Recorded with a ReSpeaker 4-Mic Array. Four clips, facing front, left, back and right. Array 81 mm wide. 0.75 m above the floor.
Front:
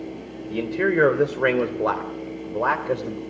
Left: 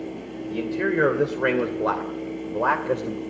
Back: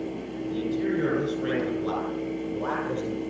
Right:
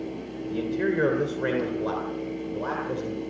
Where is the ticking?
No ticking in this recording.